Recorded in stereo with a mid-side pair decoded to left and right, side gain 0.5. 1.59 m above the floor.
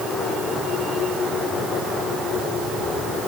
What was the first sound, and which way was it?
Only background noise.